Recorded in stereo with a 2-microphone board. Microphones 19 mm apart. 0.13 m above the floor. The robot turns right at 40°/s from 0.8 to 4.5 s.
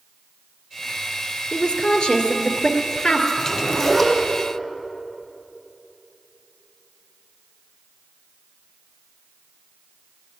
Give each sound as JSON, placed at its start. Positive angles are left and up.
{"t": 1.5, "sound": "a woman speaking", "azimuth_deg": 55, "distance_m": 2.0}
{"t": 3.4, "sound": "a zipper", "azimuth_deg": 135, "distance_m": 4.5}